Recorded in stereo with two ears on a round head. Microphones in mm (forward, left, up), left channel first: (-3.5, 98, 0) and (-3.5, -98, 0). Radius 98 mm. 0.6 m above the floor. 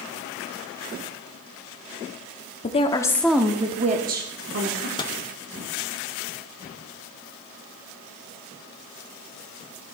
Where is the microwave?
20° left (ahead or behind), 0.6 m.